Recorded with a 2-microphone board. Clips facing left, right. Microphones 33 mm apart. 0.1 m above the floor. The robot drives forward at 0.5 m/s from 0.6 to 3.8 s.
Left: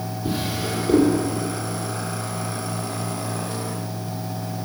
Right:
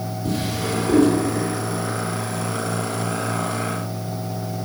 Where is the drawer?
20° left (ahead or behind), 1.8 m; by 1.1 s 15° left (ahead or behind), 2 m.